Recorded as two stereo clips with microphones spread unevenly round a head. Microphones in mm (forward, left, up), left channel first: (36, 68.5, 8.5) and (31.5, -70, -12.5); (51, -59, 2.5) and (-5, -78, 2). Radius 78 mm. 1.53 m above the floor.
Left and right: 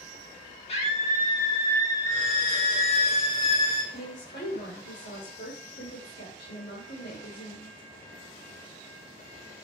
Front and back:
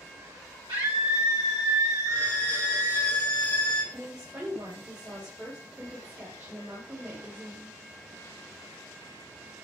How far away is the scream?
About 3.5 m.